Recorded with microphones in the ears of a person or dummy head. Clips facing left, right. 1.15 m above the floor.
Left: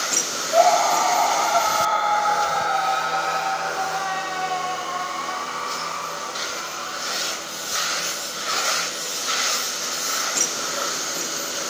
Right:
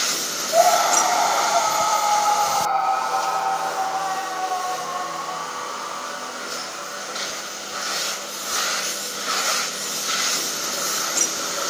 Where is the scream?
15° right (ahead or behind); by 7.3 s 55° left (ahead or behind).